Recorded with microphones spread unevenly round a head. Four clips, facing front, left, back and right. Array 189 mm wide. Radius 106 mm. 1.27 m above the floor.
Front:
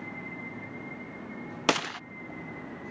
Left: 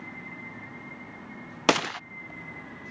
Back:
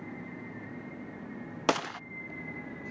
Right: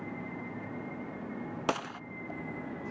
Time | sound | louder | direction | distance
1.7 | a gunshot | left 9 dB, front 1 dB | 65° left | ?